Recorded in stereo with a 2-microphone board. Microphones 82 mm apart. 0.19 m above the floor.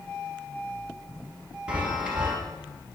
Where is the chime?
15° right (ahead or behind), 2 m.